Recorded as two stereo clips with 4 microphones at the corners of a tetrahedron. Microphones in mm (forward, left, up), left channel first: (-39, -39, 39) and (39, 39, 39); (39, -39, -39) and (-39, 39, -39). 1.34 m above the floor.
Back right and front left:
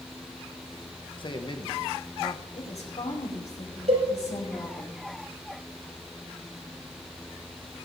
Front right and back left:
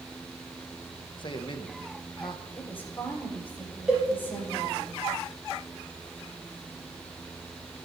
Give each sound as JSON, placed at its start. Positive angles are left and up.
{"t": 1.2, "sound": "a man speaking", "azimuth_deg": -90, "distance_m": 1.3}
{"t": 2.5, "sound": "a woman speaking", "azimuth_deg": -120, "distance_m": 4.5}
{"t": 3.9, "sound": "a cowbell", "azimuth_deg": 55, "distance_m": 5.5}